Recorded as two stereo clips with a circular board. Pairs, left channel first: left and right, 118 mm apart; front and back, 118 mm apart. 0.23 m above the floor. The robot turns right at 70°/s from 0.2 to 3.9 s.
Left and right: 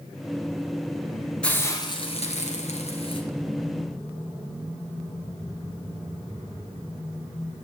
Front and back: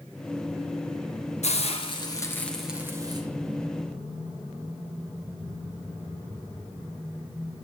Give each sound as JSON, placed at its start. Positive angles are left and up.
{"t": 1.4, "sound": "a hiss", "azimuth_deg": 10, "distance_m": 4.0}